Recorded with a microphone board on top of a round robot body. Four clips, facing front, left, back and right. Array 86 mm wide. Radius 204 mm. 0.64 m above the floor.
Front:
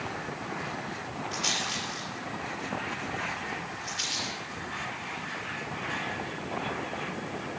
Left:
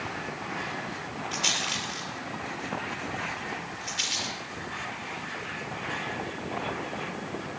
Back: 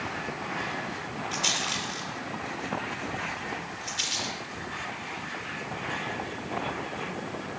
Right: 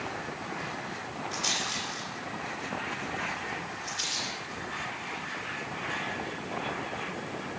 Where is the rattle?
100° left, 5.5 m.